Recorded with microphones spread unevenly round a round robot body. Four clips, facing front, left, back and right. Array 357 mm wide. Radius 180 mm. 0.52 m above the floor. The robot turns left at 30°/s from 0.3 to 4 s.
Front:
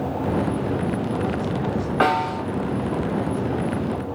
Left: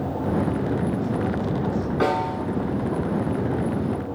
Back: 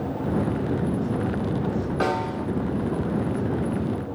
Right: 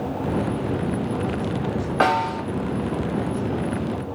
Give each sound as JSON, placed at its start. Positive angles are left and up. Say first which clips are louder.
{"t": 2.0, "sound": "a snare drum", "louder": "right 4 dB, front 6 dB", "azimuth_deg": -45, "distance_m": 2.5}